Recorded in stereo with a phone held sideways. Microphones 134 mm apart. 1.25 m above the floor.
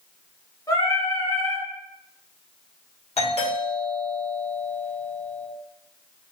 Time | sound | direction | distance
0.7 | singing | 25° left (ahead or behind) | 0.9 m
3.2 | a doorbell | 50° left (ahead or behind) | 1.3 m